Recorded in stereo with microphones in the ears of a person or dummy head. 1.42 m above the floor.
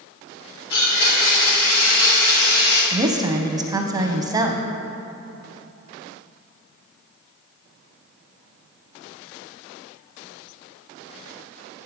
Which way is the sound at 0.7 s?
60° left (ahead or behind).